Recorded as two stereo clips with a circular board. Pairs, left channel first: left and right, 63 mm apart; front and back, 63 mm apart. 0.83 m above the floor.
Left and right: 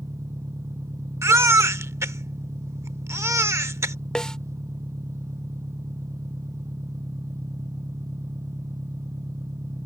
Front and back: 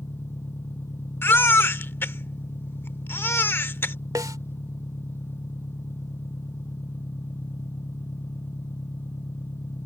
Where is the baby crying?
50° right.